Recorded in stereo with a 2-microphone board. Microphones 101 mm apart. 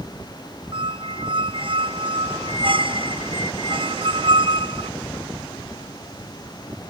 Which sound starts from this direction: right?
A squeak, at 0.7 s.